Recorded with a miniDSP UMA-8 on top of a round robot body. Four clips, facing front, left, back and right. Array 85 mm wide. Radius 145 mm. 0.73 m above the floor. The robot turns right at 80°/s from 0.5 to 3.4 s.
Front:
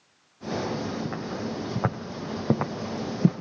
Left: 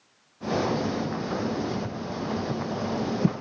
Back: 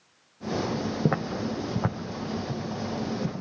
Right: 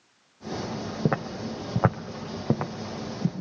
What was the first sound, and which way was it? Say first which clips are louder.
Footsteps: even, back 4 dB; 135° right.